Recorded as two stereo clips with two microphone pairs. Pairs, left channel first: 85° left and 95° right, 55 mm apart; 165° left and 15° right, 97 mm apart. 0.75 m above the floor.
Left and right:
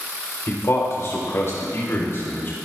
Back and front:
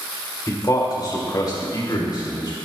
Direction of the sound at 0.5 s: 115° left.